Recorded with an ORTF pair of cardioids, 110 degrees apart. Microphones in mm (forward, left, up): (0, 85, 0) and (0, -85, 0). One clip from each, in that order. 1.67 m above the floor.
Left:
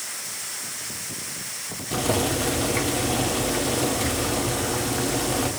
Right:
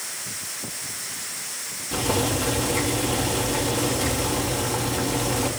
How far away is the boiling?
About 4 m.